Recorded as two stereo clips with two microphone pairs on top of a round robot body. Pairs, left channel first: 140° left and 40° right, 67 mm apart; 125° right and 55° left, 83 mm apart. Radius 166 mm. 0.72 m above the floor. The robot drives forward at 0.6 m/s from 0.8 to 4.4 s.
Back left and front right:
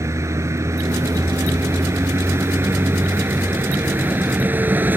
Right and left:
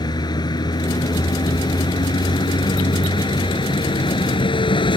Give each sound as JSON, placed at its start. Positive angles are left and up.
{"t": 0.0, "sound": "a vehicle", "azimuth_deg": -85}